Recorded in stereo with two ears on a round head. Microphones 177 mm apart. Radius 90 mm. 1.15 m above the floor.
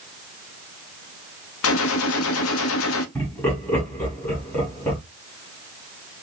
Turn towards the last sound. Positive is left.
turn(degrees=10)  # may be behind; listen again after turning